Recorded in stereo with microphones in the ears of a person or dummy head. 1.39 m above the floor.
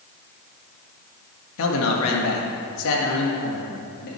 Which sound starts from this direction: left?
A man speaking, at 1.6 s.